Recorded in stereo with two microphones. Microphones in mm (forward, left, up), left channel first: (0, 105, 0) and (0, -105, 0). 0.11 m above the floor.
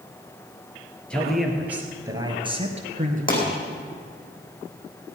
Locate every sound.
1.1 s a man speaking: 5° left (ahead or behind), 2.5 m; by 3.6 s 45° right (ahead or behind), 2.5 m
3.3 s a pop: 40° left (ahead or behind), 5 m